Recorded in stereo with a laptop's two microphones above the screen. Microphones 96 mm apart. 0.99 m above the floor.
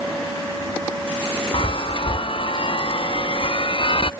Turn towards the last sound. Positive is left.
turn(degrees=55)  # may be behind; listen again after turning